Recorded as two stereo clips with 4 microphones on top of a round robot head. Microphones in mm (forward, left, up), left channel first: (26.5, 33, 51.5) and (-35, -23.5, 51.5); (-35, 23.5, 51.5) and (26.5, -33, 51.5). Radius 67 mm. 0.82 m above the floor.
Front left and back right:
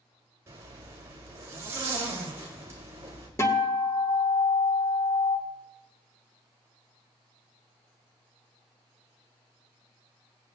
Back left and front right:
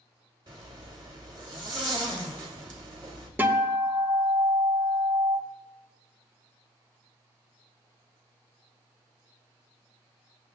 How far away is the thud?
No thud in this recording.